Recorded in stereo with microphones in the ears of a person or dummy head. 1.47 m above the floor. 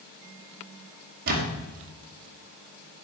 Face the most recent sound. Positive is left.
turn(degrees=-60)  # may be behind; listen again after turning